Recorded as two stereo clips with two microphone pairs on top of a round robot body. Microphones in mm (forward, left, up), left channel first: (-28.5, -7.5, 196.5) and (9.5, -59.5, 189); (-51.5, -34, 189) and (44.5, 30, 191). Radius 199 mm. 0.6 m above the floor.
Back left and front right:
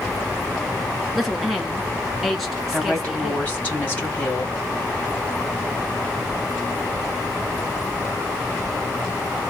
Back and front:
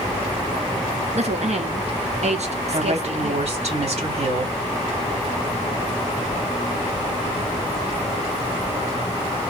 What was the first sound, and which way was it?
A woman speaking, 35° left.